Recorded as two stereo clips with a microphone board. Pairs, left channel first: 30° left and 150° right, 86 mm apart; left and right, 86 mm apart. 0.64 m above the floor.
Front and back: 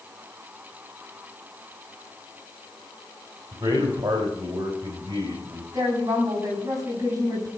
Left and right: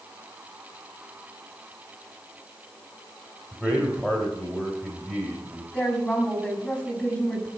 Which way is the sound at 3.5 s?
170° left.